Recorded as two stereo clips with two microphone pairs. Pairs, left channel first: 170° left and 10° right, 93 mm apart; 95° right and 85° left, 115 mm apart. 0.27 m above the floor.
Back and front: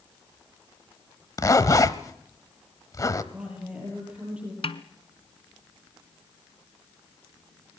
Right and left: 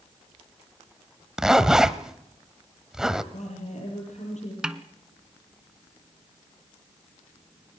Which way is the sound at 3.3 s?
85° right.